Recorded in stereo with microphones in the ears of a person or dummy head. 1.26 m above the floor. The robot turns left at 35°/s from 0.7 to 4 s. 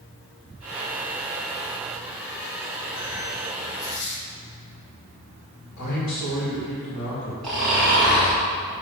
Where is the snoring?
Centre (ahead or behind), 1.8 m.